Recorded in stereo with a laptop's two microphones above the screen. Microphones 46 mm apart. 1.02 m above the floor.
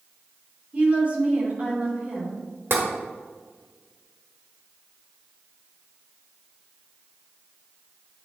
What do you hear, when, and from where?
0.7 s a woman speaking: 30° right (ahead or behind), 2.5 m
2.7 s tapping: 60° right (ahead or behind), 1.5 m